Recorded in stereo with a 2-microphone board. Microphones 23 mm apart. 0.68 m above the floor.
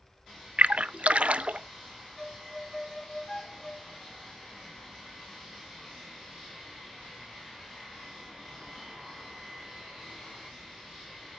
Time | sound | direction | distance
0.6 | a splash | 60° right (ahead or behind) | 0.6 m
2.2 | a violin | 20° left (ahead or behind) | 0.7 m